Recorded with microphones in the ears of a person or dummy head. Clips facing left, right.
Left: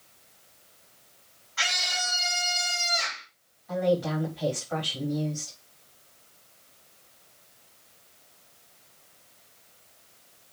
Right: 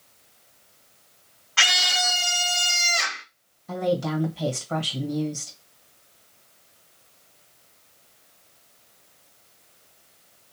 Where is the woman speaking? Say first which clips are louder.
Even; 50° right (ahead or behind), 1.5 m.